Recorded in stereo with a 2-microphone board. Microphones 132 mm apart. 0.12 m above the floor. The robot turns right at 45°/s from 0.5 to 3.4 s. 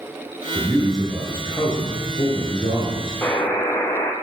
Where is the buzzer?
20° left (ahead or behind), 0.8 m; by 4.1 s 25° left (ahead or behind), 0.8 m.